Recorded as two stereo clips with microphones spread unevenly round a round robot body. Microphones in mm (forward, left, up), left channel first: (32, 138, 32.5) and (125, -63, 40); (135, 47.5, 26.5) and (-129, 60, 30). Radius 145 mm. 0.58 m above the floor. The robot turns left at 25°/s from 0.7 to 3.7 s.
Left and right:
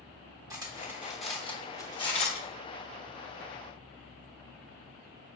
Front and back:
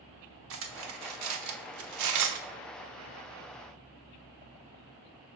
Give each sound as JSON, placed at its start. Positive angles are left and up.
{"t": 0.5, "sound": "cutlery clinking", "azimuth_deg": -140, "distance_m": 0.8}